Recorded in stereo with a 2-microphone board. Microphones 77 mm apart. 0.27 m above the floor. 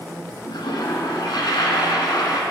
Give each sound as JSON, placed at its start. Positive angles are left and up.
{"t": 0.5, "sound": "a toilet flushing", "side_deg": 80, "distance_m": 0.8}